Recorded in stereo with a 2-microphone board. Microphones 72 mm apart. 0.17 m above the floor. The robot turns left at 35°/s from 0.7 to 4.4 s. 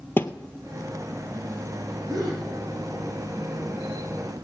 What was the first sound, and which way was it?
A thud, 30° left (ahead or behind).